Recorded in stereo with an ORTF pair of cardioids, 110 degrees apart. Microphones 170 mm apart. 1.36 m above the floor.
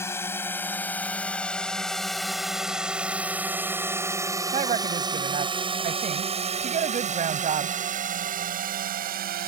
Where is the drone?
15° left; by 9.5 s 60° right.